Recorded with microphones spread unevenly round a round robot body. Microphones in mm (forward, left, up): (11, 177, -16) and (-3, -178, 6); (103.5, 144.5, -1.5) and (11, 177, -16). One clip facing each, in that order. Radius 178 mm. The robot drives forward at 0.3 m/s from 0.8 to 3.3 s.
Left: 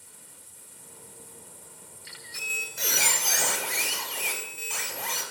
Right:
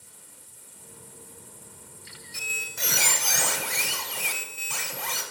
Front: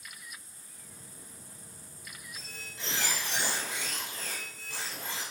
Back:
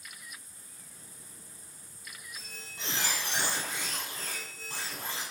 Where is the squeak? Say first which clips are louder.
Even, front 1 dB; 120° right, 0.7 m; by 5.2 s 135° right, 0.9 m.